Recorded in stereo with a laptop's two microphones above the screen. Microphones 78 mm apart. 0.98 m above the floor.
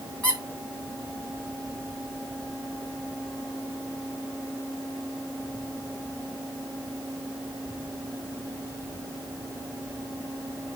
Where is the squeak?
15° left (ahead or behind), 3.5 m.